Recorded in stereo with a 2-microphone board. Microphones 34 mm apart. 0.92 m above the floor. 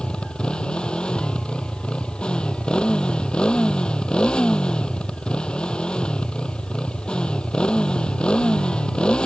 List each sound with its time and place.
0.0 s a motorcycle: 30° left (ahead or behind)